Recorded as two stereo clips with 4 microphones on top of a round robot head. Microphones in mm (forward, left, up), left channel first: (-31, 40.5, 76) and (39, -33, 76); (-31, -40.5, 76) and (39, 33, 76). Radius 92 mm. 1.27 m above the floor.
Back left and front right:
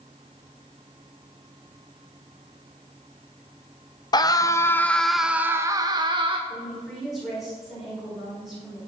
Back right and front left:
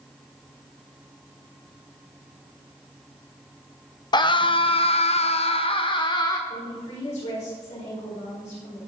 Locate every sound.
4.1 s a scream: straight behind, 1.0 m; by 6.4 s 85° right, 1.0 m
6.5 s a woman speaking: 135° right, 5 m